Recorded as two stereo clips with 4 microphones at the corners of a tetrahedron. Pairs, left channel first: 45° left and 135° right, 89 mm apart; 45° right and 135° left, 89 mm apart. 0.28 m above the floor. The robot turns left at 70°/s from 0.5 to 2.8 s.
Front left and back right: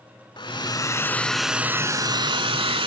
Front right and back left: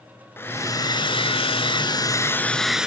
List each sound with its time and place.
0.4 s a hair dryer: 20° left, 0.8 m; by 2.9 s 145° right, 0.8 m